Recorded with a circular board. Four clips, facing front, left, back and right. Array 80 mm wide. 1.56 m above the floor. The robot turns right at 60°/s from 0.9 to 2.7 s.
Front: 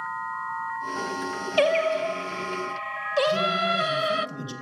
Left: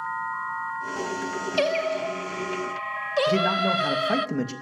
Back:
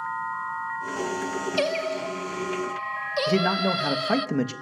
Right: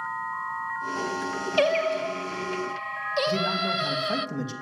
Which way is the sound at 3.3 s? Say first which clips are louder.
Left 7 dB, back 5 dB; 155° left.